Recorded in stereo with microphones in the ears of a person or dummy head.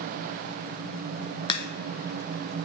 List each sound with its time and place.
1.5 s a crack: 30° left (ahead or behind), 0.6 m